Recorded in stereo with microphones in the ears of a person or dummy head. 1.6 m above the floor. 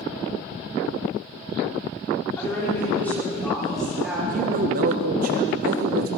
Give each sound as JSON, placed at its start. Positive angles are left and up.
{"t": 2.4, "sound": "a woman speaking", "side_deg": 15, "distance_m": 5.0}
{"t": 4.3, "sound": "a man speaking", "side_deg": -50, "distance_m": 1.5}